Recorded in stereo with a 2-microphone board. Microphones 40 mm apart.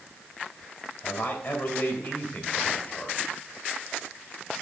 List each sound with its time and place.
1.0 s a man speaking: 45° left (ahead or behind), 3.5 m